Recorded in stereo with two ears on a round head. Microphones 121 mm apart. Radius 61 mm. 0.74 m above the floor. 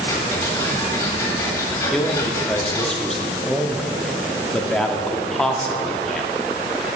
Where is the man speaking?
5° left (ahead or behind), 1.1 m.